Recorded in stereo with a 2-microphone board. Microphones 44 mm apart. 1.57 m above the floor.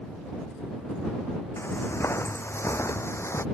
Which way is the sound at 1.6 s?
70° left (ahead or behind).